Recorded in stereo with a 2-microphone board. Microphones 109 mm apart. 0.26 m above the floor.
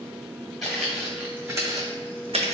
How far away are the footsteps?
About 1.1 m.